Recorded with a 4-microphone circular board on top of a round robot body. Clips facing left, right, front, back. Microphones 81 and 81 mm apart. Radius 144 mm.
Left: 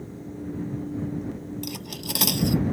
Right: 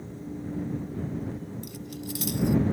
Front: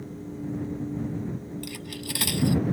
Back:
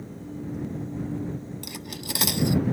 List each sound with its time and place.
1.6 s cutlery clinking: 110° left